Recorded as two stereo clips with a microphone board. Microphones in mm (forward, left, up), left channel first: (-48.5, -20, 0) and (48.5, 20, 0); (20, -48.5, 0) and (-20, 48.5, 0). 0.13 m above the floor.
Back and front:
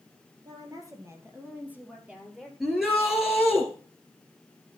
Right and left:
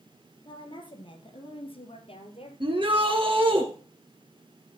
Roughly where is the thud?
No thud in this recording.